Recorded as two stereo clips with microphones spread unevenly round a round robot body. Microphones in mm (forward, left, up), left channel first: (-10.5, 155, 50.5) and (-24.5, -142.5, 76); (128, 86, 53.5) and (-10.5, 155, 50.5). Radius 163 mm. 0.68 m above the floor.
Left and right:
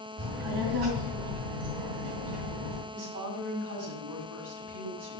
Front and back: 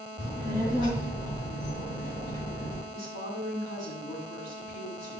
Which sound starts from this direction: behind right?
A woman speaking, at 2.9 s.